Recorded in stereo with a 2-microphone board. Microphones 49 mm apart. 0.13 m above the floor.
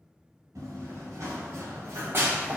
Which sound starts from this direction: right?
Running footsteps, at 0.6 s.